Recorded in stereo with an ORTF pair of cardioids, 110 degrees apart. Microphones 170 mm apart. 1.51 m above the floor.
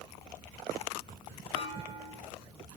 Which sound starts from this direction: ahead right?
A clunk, at 1.6 s.